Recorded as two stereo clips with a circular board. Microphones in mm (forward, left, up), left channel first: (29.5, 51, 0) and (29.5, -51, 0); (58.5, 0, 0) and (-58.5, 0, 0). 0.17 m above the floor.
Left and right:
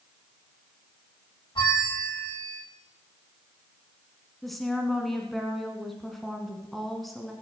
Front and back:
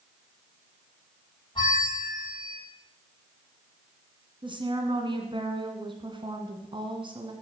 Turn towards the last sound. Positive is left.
turn(degrees=180)